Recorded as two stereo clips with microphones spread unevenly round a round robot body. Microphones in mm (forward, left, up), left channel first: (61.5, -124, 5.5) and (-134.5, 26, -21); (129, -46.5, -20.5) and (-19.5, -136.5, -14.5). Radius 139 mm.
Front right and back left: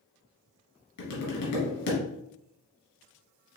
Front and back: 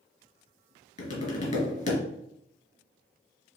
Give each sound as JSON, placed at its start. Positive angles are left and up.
{"t": 1.0, "sound": "tapping", "azimuth_deg": -15, "distance_m": 2.5}